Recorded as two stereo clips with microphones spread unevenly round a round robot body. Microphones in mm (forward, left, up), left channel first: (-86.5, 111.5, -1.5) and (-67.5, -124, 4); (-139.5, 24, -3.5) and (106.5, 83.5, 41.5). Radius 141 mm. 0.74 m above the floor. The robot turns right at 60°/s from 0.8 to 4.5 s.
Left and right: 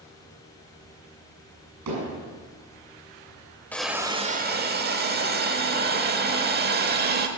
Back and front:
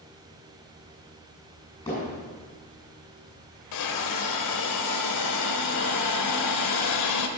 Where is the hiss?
Straight behind, 1.2 m; by 7.3 s 135° right, 1.2 m.